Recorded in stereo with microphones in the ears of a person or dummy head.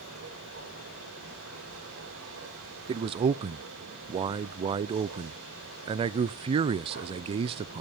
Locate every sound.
0.0 s a machine running: 85° right, 6.5 m
2.9 s a man speaking: 30° right (ahead or behind), 0.5 m